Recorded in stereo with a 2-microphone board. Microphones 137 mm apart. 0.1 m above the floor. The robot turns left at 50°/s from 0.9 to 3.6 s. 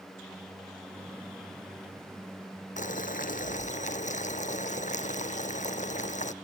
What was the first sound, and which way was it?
Boiling, 110° left.